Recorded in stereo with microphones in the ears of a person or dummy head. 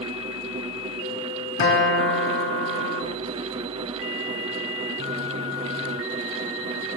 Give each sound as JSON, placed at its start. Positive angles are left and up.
{"t": 1.6, "sound": "a guitar", "side_deg": 60, "distance_m": 1.8}